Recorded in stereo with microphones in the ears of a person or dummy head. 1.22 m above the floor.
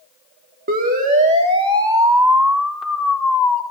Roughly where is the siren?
Right.